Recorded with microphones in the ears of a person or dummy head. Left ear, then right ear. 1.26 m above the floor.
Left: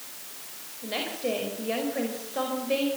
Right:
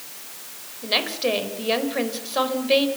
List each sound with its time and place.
0.8 s a woman speaking: 40° right (ahead or behind), 4.5 m